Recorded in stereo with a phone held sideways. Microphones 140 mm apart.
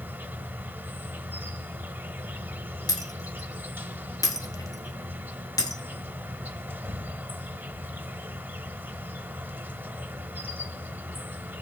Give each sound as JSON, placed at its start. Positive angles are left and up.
{"t": 0.0, "sound": "an insect", "side_deg": -15, "distance_m": 0.7}
{"t": 2.9, "sound": "breaking glass", "side_deg": 25, "distance_m": 1.5}